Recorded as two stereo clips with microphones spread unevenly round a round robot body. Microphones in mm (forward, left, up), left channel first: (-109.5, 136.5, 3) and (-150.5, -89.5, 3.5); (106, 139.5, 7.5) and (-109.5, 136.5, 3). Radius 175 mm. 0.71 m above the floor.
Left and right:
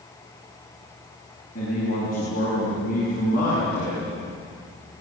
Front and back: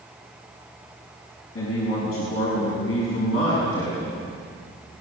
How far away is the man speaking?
About 7 m.